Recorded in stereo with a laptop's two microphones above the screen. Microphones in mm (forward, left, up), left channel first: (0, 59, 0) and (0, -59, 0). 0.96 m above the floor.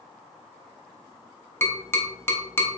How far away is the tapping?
About 0.7 m.